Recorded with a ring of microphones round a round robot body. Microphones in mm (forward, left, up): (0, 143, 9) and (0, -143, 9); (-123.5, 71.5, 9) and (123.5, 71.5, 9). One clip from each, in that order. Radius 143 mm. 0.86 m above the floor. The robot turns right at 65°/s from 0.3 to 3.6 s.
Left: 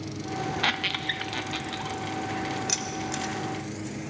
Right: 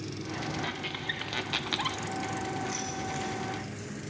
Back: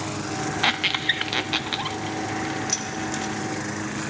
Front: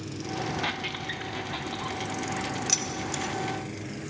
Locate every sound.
0.6 s a squeak: 135° left, 0.5 m; by 2.0 s 140° right, 0.5 m
2.7 s keys jangling: 75° left, 2 m; by 3.3 s 120° left, 2 m